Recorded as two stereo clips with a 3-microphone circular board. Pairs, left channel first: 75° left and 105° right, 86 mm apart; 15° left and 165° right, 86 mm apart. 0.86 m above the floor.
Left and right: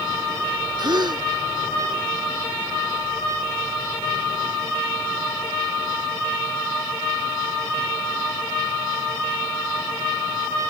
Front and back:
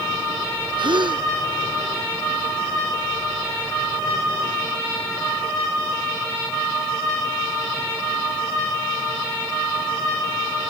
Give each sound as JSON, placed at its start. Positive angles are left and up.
{"t": 0.8, "sound": "a gasp", "azimuth_deg": -140}